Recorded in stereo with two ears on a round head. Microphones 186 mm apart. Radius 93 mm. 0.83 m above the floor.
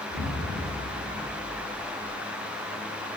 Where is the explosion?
45° right (ahead or behind), 2 m.